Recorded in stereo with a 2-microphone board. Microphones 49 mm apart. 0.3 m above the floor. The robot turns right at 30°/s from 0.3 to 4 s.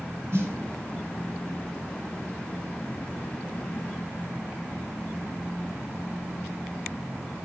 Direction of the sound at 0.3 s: 55° right (ahead or behind).